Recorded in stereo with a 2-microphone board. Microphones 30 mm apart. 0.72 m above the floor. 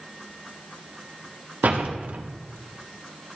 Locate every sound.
1.6 s a door slam: 60° right (ahead or behind), 1.2 m